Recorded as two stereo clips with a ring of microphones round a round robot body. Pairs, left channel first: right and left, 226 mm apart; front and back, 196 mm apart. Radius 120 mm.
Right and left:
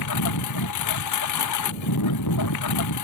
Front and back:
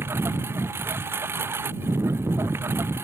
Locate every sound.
0.0 s a lawn mower: 100° right